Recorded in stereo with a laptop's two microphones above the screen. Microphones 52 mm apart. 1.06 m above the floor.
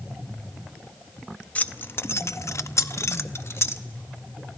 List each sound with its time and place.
1.6 s keys jangling: 30° left (ahead or behind), 0.6 m; by 3.8 s 55° left (ahead or behind), 1.2 m